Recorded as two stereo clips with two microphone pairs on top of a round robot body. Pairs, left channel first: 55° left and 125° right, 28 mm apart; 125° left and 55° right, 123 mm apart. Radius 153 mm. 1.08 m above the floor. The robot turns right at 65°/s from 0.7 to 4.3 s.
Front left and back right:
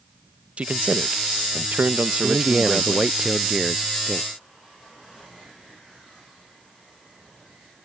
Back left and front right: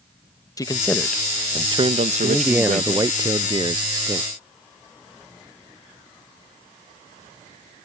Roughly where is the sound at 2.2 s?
Behind right.